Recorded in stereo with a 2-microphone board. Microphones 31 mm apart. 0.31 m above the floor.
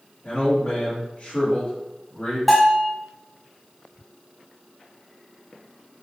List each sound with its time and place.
0.2 s a man speaking: 40° left (ahead or behind), 1.7 m
2.5 s a bell: 10° left (ahead or behind), 1.2 m